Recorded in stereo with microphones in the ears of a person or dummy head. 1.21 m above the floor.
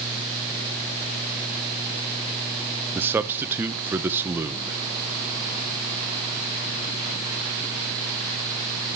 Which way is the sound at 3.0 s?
10° right (ahead or behind).